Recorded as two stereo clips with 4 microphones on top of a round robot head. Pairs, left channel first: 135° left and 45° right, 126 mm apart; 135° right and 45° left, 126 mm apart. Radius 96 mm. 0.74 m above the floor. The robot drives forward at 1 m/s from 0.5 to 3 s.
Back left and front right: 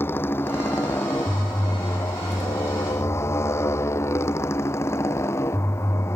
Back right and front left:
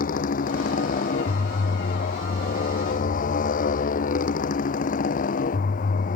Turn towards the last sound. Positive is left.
turn(degrees=-150)